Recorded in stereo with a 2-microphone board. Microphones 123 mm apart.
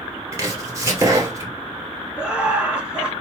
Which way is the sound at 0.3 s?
25° right (ahead or behind).